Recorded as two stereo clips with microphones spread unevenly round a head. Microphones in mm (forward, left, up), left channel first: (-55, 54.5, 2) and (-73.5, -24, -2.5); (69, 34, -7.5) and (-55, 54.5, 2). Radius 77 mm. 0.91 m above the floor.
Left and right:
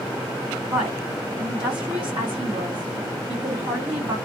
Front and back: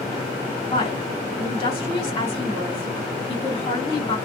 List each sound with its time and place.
0.7 s a woman speaking: 60° right, 2.0 m